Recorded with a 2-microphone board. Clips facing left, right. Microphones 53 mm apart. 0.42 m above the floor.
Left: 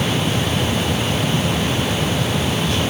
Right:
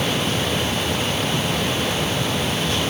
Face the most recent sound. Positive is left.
No sound to turn to.